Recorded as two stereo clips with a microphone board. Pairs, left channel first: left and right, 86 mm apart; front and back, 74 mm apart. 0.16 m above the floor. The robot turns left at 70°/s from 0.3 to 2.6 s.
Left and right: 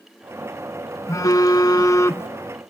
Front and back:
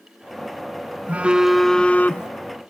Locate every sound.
1.1 s a phone buzzing: 120° left, 0.6 m; by 2.3 s 35° left, 0.6 m